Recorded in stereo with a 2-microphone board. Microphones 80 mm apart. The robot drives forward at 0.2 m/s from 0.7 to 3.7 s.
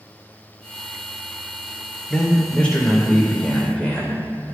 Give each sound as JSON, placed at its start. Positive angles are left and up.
{"t": 2.1, "sound": "a man speaking", "side_deg": 15, "distance_m": 0.8}